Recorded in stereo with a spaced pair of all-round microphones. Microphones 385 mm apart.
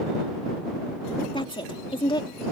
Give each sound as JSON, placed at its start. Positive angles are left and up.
{"t": 1.3, "sound": "a woman speaking", "side_deg": 10}